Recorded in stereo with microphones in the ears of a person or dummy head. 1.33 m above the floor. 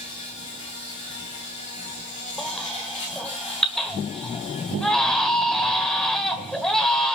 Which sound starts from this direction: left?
An insect, at 0.0 s.